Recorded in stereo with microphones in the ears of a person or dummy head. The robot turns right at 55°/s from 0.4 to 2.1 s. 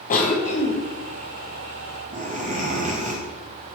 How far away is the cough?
About 0.6 m.